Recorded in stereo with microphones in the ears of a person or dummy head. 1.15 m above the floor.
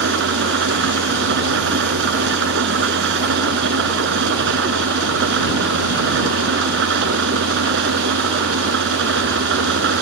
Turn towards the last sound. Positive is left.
turn(degrees=-70)  # may be behind; listen again after turning